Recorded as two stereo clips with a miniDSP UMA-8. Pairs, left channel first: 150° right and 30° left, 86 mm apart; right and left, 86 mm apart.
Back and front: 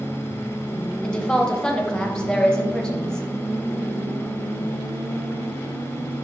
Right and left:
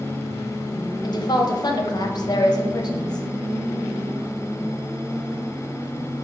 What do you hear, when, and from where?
1.0 s a woman speaking: 70° right, 0.6 m